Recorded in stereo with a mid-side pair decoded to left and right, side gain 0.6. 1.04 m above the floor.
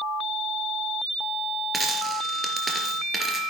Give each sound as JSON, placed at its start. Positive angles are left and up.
{"t": 1.7, "sound": "a dropped coin", "azimuth_deg": -15, "distance_m": 3.5}